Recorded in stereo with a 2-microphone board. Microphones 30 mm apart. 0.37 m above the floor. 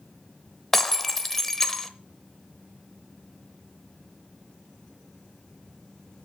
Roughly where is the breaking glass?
Centre.